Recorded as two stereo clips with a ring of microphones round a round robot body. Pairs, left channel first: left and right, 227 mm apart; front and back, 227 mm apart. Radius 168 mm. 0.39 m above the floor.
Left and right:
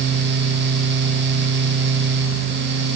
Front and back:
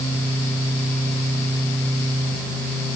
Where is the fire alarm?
I don't hear a fire alarm.